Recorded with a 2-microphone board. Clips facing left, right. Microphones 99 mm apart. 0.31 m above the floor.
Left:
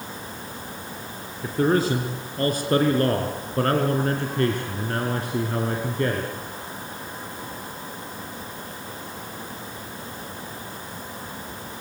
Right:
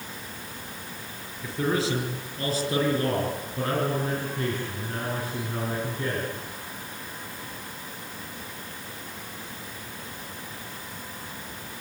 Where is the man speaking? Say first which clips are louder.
Left 5 dB; 45° left (ahead or behind), 4.5 m; by 6.3 s 65° left (ahead or behind), 4 m.